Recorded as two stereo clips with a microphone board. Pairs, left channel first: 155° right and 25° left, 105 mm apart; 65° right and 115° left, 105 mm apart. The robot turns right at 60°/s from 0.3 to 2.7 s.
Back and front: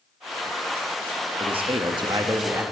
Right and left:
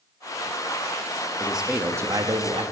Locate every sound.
1.4 s a man speaking: 15° left, 1.4 m; by 2.6 s 90° left, 1.4 m